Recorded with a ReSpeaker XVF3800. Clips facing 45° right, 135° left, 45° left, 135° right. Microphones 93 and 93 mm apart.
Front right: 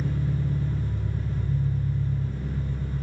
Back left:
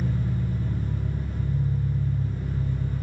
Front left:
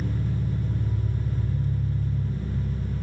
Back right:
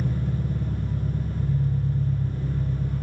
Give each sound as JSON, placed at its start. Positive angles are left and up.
{"t": 0.0, "sound": "an engine running", "azimuth_deg": -150, "distance_m": 2.5}